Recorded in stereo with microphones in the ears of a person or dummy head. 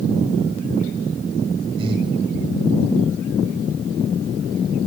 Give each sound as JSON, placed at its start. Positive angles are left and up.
{"t": 1.8, "sound": "breathing", "side_deg": -30, "distance_m": 1.7}